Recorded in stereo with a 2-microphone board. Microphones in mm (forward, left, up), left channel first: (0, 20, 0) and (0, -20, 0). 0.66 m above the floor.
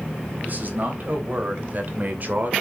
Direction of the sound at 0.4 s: 50° right (ahead or behind).